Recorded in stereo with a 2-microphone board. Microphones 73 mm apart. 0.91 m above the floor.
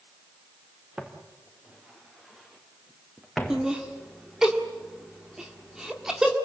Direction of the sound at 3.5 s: 10° right (ahead or behind).